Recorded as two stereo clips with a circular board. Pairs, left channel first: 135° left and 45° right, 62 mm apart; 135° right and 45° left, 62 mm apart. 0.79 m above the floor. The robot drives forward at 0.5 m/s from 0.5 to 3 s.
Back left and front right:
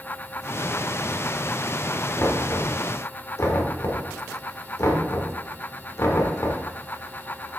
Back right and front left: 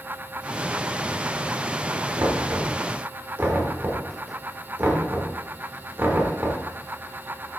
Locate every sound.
2.2 s knocking: 80° left, 1.2 m; by 6.6 s 100° left, 1.2 m